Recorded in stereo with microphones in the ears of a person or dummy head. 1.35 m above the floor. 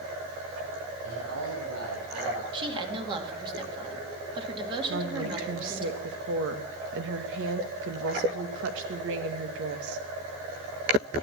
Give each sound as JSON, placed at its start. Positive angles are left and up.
{"t": 1.0, "sound": "a man speaking", "side_deg": -80, "distance_m": 8.5}
{"t": 2.5, "sound": "a woman speaking", "side_deg": -25, "distance_m": 2.5}
{"t": 4.9, "sound": "a woman speaking", "side_deg": -70, "distance_m": 1.9}